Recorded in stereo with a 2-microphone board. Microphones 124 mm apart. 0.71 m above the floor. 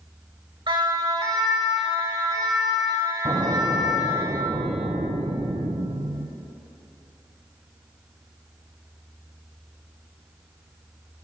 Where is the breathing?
I don't hear breathing.